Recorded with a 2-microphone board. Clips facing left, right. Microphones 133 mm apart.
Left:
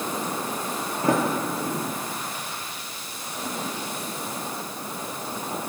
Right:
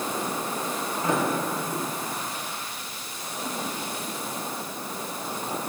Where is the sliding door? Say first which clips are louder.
Left 3 dB; 45° left (ahead or behind), 5 m.